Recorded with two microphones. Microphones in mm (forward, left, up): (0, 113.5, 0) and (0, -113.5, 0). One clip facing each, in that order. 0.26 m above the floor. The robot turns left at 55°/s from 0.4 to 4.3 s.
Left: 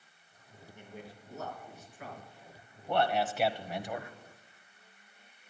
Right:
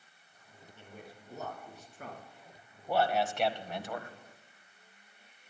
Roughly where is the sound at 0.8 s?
Centre.